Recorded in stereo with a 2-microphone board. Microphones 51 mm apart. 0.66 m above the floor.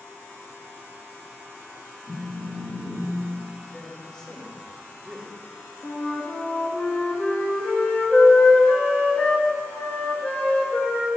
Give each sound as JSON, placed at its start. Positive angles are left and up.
{"t": 2.1, "sound": "a phone buzzing", "side_deg": 30, "distance_m": 2.5}
{"t": 3.7, "sound": "a man speaking", "side_deg": 15, "distance_m": 2.5}
{"t": 5.8, "sound": "a flute", "side_deg": 35, "distance_m": 1.4}